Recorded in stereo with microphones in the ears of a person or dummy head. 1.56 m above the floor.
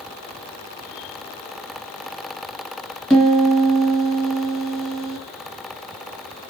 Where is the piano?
Centre (ahead or behind), 2.5 m.